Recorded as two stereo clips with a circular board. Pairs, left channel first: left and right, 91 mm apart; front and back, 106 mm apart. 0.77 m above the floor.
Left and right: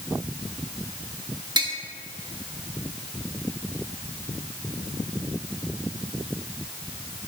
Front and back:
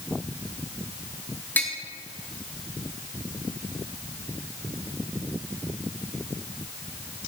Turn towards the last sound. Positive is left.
turn(degrees=-70)